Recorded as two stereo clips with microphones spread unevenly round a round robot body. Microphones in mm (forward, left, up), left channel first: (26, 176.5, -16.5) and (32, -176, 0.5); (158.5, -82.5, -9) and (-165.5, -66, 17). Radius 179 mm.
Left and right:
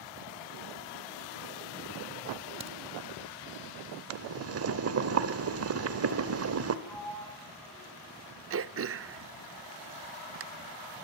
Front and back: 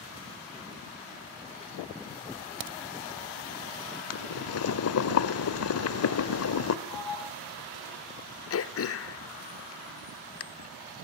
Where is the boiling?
40° right, 1.4 m.